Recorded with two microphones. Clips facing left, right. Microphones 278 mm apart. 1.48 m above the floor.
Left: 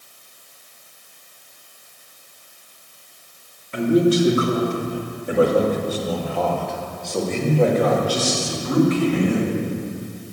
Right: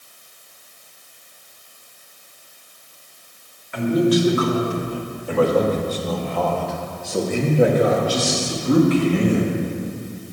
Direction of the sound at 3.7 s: 35° left (ahead or behind).